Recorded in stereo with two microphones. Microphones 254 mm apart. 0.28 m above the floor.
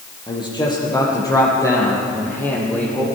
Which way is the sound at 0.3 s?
20° left (ahead or behind).